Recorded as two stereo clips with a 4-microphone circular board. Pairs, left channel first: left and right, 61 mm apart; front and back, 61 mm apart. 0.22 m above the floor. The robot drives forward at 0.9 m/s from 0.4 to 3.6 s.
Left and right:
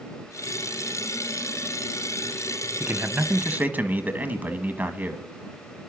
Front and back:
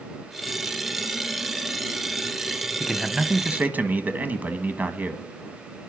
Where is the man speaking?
80° right, 1.1 m; by 5.2 s 135° right, 1.2 m.